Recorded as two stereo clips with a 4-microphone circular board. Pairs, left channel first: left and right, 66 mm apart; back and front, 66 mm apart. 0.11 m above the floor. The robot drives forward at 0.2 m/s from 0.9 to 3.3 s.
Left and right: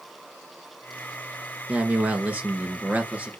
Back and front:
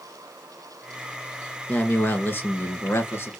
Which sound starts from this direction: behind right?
A man speaking, at 1.7 s.